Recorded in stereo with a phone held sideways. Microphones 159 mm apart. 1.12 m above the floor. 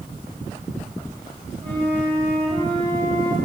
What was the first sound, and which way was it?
A flute, 35° right (ahead or behind).